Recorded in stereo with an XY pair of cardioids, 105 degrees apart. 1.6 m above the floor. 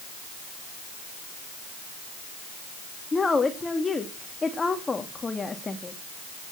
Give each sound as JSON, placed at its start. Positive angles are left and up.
{"t": 3.1, "sound": "a woman speaking", "azimuth_deg": 25, "distance_m": 2.5}